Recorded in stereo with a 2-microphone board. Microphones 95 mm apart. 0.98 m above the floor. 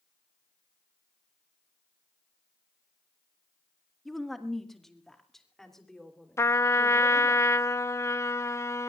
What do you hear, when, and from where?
4.0 s a woman speaking: centre (ahead or behind), 1.4 m; by 7.4 s 5° left (ahead or behind), 4 m
6.4 s a trumpet: 30° left (ahead or behind), 0.6 m